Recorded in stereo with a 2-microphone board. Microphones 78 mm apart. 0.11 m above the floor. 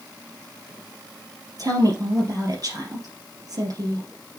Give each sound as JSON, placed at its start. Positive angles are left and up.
{"t": 1.6, "sound": "a woman speaking", "side_deg": -50, "distance_m": 3.0}